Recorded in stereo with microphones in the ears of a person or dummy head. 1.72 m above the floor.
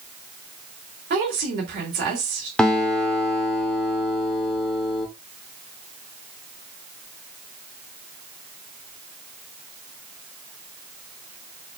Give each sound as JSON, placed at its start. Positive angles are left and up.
{"t": 1.1, "sound": "a woman speaking", "side_deg": -50, "distance_m": 1.2}
{"t": 2.6, "sound": "a guitar", "side_deg": 0, "distance_m": 0.6}